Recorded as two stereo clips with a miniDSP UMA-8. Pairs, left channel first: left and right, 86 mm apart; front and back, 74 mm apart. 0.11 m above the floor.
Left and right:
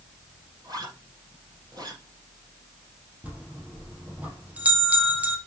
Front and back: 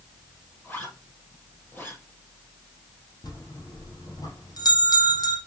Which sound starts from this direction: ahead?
A bell, at 3.2 s.